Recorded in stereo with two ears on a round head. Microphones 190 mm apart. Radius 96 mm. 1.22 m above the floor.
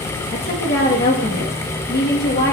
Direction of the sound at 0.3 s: 50° left (ahead or behind).